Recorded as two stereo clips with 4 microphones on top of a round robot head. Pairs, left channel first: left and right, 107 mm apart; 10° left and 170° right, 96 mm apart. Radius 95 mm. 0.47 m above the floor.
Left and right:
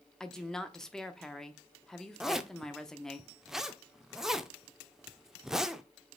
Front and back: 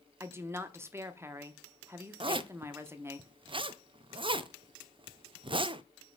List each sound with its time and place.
0.2 s a woman speaking: 165° left, 1.0 m
2.2 s a zipper: 175° right, 0.6 m